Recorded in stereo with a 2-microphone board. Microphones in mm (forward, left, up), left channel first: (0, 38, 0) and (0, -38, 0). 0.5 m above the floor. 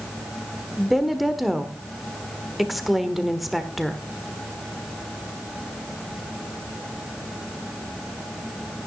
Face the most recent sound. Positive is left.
turn(degrees=0)  # may be behind; listen again after turning